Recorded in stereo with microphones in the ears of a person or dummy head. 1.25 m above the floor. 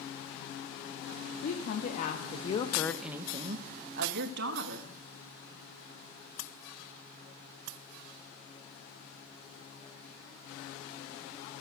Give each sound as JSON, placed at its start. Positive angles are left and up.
{"t": 1.4, "sound": "a woman speaking", "side_deg": 65, "distance_m": 1.9}